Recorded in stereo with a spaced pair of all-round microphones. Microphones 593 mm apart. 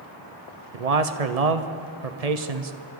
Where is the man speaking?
85° right, 1.1 m.